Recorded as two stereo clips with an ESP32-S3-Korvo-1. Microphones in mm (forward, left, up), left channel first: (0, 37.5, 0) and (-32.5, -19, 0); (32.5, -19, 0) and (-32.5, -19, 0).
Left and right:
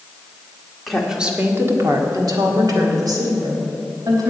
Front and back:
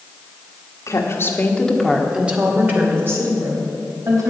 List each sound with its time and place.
0.9 s a woman speaking: 30° right, 1.7 m; by 4.3 s 140° right, 4.5 m